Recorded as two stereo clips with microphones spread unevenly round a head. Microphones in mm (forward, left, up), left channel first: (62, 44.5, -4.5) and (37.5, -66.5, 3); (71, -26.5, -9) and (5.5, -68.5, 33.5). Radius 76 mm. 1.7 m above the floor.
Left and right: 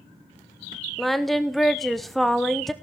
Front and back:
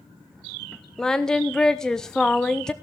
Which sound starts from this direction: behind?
Singing, at 1.0 s.